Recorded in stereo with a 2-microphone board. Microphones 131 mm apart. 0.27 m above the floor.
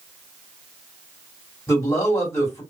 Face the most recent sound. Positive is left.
turn(degrees=20)  # may be behind; listen again after turning